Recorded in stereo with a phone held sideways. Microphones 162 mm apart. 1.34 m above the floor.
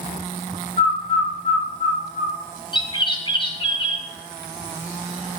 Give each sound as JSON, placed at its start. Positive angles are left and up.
{"t": 0.8, "sound": "a bird", "side_deg": 45, "distance_m": 3.0}
{"t": 2.7, "sound": "a bird", "side_deg": 30, "distance_m": 1.5}